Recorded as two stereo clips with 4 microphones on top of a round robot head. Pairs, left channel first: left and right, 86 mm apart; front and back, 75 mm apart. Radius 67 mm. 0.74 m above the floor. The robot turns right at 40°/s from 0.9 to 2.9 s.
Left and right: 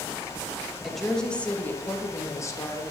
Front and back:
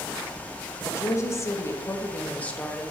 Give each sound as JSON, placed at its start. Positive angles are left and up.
{"t": 0.8, "sound": "a woman speaking", "azimuth_deg": 0, "distance_m": 1.0}